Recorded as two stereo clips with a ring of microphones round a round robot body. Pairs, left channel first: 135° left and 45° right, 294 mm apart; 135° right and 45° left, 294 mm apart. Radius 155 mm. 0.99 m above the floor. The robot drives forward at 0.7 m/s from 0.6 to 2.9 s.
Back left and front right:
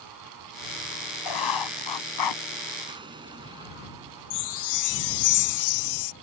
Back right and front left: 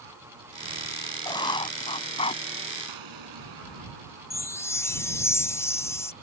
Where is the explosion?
30° left.